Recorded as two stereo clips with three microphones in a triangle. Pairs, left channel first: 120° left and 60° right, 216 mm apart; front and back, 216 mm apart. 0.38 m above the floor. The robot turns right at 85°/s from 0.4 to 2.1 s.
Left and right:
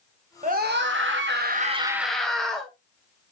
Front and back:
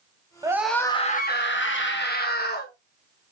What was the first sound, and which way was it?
A scream, 110° right.